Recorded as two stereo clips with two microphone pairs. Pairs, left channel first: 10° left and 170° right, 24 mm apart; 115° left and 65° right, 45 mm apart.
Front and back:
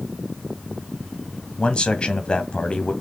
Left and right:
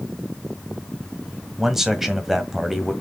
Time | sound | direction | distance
1.6 | a man speaking | 10° left | 1.7 m